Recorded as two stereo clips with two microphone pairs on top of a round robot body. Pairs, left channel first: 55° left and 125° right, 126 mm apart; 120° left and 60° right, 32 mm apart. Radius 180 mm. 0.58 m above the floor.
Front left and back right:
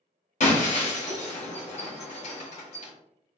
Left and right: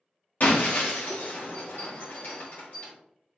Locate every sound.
0.4 s breaking glass: 80° left, 1.8 m